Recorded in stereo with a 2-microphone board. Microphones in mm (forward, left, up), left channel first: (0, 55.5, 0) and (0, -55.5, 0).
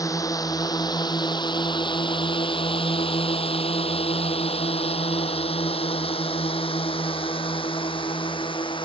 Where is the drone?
35° left (ahead or behind); by 8.9 s 50° left (ahead or behind).